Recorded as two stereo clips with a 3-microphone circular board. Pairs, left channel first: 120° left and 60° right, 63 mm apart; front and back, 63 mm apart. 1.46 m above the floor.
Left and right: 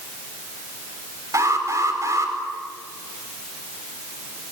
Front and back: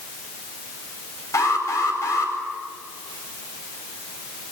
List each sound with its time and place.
1.3 s an alarm: 30° right, 5 m